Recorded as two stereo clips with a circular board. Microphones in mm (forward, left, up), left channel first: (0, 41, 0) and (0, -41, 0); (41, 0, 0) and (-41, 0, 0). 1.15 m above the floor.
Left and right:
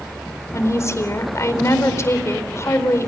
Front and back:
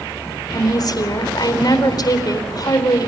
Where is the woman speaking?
35° left, 4 m.